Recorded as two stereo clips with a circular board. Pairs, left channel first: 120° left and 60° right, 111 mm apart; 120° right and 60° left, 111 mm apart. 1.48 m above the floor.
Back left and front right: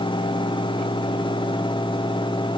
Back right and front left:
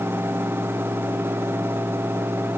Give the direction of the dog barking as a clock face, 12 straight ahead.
I don't hear a dog barking.